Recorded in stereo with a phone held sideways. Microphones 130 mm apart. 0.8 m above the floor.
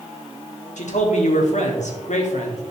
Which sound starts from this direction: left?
A man speaking, at 0.8 s.